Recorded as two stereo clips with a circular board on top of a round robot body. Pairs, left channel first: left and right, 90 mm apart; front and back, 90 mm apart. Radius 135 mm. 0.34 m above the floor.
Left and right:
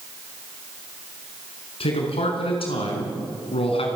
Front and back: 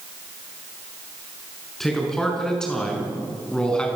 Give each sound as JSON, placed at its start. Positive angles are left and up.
{"t": 1.8, "sound": "a man speaking", "azimuth_deg": 85, "distance_m": 6.5}